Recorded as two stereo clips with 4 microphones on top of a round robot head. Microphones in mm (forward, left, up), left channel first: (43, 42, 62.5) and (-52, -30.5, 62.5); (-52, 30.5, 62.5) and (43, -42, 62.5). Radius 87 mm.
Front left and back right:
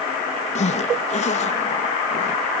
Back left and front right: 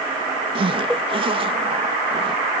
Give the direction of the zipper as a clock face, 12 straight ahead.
12 o'clock.